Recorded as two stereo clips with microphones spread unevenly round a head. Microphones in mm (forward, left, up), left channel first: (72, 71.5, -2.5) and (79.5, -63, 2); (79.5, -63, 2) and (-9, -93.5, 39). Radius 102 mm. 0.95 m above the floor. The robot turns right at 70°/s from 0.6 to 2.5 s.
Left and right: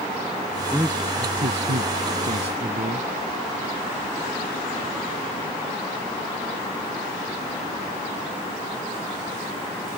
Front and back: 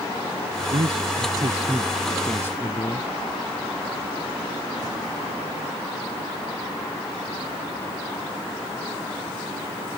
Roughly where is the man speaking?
Behind.